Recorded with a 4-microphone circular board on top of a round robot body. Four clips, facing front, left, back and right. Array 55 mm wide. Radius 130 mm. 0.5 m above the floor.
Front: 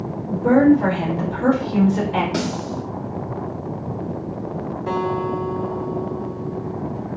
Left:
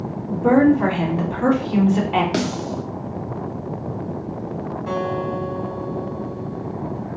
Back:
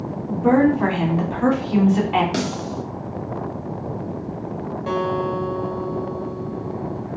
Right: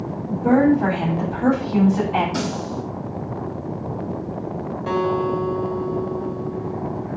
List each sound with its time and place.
0.3 s a woman speaking: 135° left, 2 m
2.3 s a snare drum: 110° left, 1.2 m
4.9 s a guitar: 135° right, 1.6 m